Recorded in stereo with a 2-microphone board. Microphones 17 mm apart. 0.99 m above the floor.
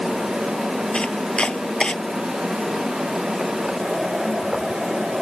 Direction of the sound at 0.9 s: 90° left.